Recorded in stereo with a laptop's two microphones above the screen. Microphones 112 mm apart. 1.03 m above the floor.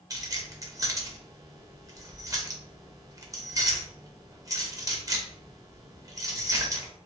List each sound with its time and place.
0.1 s keys jangling: 30° right (ahead or behind), 0.7 m